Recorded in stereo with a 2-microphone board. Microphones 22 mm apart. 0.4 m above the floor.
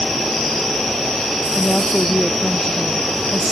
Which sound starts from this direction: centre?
A woman speaking, at 1.6 s.